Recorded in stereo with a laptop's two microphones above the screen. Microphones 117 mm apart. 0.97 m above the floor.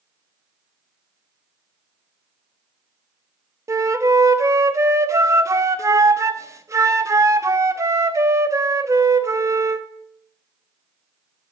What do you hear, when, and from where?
3.7 s a flute: 25° right (ahead or behind), 0.7 m